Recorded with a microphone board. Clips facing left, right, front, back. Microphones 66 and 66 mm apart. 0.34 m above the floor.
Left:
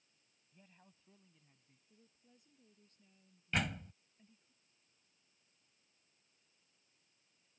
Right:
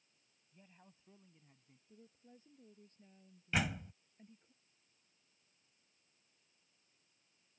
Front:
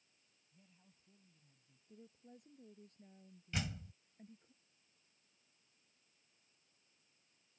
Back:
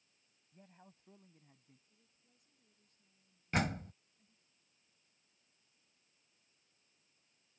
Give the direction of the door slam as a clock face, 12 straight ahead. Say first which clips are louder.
Right 1 dB, back 8 dB; 6 o'clock.